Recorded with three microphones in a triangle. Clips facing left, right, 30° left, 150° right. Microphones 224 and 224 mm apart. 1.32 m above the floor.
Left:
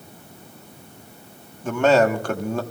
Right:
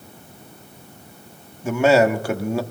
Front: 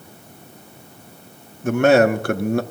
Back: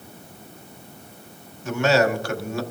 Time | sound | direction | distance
1.6 | a man speaking | 10° right | 1.1 m